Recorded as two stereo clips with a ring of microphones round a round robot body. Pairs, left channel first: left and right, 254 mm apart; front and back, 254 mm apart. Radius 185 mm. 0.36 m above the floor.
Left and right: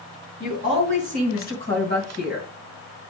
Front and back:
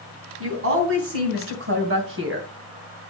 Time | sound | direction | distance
0.4 | a woman speaking | 150° left | 3.5 m